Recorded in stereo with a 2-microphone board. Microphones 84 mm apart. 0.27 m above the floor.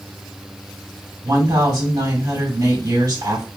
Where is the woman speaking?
50° right (ahead or behind), 2.5 m.